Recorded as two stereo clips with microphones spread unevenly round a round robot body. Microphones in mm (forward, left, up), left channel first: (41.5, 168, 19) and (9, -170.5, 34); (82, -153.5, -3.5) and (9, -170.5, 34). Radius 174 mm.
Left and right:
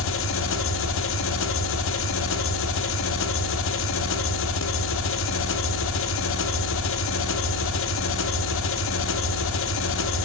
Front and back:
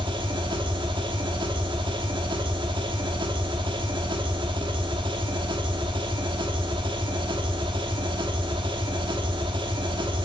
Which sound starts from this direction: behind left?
An engine running, at 0.0 s.